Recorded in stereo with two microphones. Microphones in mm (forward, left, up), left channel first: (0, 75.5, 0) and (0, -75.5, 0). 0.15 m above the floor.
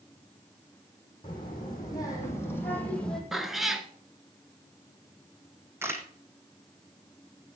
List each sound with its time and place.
1.2 s a child speaking: 30° left (ahead or behind), 5.5 m; by 3.2 s 5° left (ahead or behind), 3.5 m
3.3 s a cat meowing: centre (ahead or behind), 1.0 m
5.8 s a camera shutter: 15° right (ahead or behind), 1.5 m